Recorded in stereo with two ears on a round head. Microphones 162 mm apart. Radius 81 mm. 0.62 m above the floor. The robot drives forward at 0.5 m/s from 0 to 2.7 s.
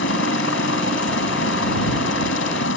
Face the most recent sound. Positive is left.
turn(degrees=75)  # may be behind; listen again after turning